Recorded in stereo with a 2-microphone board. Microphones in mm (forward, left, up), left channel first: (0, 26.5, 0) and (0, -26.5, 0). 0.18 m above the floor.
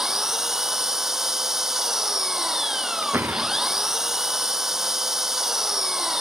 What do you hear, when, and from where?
0.0 s an engine running: 10° right (ahead or behind)
3.0 s a door slam: 35° right (ahead or behind)